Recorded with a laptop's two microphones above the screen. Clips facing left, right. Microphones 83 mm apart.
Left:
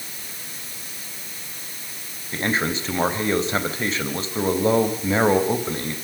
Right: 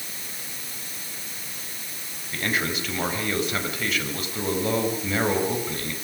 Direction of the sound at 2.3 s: 30° left (ahead or behind).